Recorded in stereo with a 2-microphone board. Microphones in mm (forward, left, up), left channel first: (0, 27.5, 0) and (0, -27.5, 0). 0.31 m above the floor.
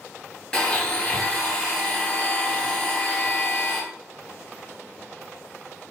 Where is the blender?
15° left (ahead or behind), 2 m.